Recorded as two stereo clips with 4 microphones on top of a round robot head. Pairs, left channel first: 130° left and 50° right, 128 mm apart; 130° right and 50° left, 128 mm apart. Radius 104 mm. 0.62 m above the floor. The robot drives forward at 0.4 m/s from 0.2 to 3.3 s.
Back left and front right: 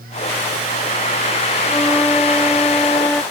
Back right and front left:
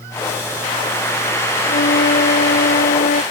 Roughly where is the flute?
Behind right.